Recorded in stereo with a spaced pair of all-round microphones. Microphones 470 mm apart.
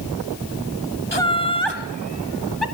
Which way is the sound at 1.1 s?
65° right (ahead or behind).